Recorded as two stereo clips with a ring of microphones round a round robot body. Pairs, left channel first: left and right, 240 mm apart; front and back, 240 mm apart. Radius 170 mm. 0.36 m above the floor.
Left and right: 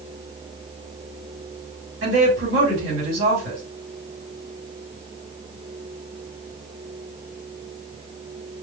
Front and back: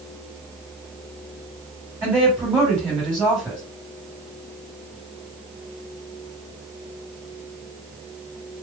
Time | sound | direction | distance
2.0 | a woman speaking | 100° right | 1.7 m